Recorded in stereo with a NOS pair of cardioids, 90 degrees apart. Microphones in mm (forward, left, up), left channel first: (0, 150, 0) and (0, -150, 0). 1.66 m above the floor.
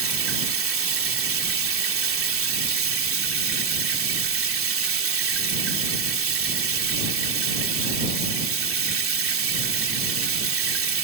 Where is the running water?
45° right.